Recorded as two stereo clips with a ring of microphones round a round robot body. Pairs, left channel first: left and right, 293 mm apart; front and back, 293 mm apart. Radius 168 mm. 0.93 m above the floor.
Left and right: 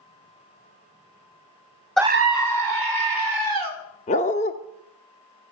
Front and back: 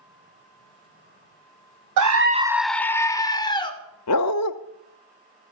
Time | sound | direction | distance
2.0 | a scream | 175° left | 0.5 m
4.1 | a dog barking | 25° left | 0.6 m